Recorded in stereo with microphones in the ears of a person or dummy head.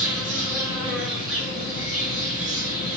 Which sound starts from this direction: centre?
An insect, at 0.0 s.